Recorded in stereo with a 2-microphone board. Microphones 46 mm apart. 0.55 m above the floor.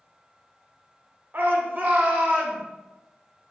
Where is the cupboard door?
No cupboard door in this recording.